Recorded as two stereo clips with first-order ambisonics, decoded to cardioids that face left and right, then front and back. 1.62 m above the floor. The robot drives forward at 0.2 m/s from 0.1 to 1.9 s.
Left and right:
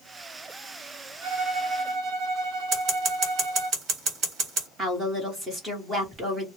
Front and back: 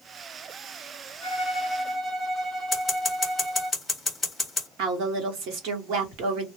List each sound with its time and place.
1.2 s a violin: 90° right, 0.8 m; by 3.7 s 105° right, 0.9 m
2.7 s scissors: 85° right, 1.2 m
4.8 s a woman speaking: 160° right, 1.1 m